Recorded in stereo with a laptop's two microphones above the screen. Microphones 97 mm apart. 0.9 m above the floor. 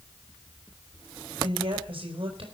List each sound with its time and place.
1.4 s a woman speaking: 70° right (ahead or behind), 5 m